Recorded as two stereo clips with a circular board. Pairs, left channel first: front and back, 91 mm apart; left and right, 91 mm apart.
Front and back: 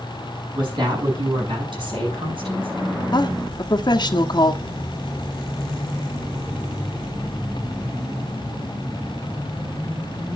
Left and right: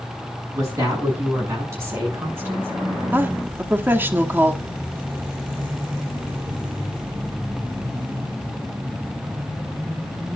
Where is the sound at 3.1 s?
25° right, 1.1 m.